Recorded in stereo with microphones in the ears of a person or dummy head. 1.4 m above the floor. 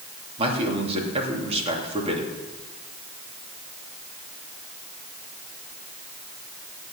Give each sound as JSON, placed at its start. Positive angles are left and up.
{"t": 0.4, "sound": "a man speaking", "side_deg": -25, "distance_m": 2.5}